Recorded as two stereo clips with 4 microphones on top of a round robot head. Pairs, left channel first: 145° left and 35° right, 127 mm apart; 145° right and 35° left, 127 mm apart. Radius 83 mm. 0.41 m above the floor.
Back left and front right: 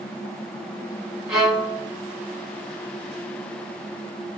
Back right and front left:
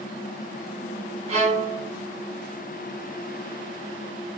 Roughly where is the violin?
Ahead left.